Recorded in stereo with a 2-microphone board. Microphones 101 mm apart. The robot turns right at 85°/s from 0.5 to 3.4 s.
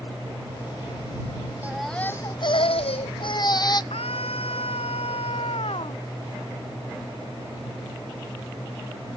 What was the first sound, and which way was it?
A baby crying, 15° right.